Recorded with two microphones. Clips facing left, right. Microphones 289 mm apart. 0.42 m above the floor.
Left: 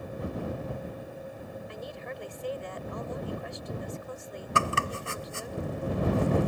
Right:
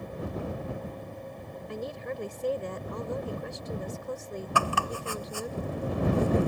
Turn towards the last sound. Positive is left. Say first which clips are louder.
# left 1 dB
turn(degrees=25)  # may be behind; listen again after turning